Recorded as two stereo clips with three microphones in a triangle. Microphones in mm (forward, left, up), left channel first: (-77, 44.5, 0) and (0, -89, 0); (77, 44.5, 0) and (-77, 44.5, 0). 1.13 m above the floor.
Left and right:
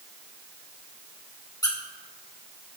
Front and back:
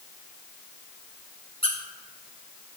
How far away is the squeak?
About 1.7 m.